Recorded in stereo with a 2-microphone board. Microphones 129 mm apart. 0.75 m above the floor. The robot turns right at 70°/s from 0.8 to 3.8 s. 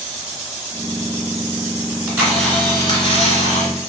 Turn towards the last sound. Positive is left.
turn(degrees=105)